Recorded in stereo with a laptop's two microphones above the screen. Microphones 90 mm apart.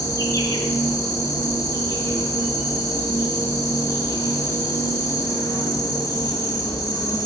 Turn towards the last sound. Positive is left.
turn(degrees=35)  # may be behind; listen again after turning